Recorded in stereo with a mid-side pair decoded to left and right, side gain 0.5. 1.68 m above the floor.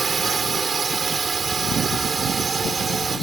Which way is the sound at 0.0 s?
35° right.